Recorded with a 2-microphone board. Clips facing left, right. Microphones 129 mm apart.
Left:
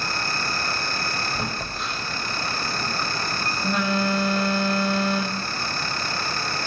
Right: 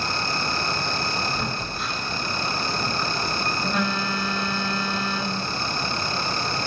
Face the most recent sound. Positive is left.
turn(degrees=0)  # may be behind; listen again after turning